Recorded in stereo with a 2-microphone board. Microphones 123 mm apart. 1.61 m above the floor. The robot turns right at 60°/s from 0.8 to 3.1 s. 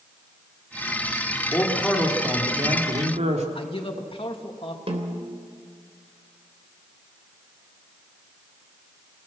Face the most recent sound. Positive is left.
turn(degrees=-50)  # may be behind; listen again after turning